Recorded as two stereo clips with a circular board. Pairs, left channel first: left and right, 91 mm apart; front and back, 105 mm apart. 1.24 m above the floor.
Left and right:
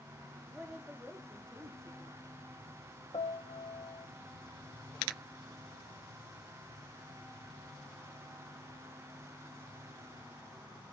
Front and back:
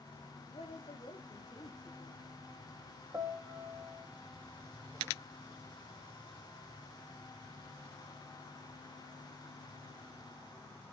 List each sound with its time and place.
0.5 s a woman speaking: 5° right, 3 m; by 2.2 s 40° right, 3.5 m
3.1 s a piano: 115° left, 1.4 m